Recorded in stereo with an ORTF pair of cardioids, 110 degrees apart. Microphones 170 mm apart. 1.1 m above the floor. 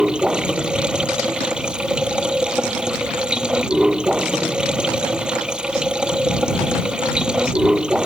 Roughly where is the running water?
Ahead.